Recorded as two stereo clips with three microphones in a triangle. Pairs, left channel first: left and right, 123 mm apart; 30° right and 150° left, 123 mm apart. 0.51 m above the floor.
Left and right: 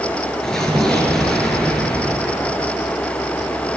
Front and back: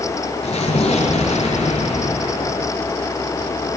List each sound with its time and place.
0.4 s an explosion: 5° left, 7.5 m